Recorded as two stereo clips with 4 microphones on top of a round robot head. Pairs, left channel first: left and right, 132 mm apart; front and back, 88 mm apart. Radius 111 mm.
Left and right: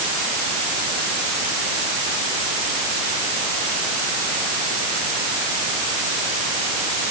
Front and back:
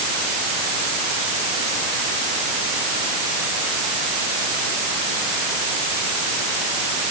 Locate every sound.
Only background noise.